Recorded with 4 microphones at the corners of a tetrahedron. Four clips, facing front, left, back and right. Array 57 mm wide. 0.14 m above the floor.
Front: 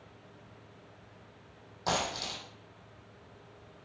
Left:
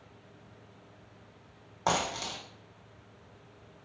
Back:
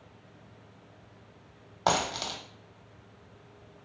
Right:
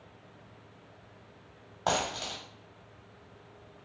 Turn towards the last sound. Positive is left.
turn(degrees=180)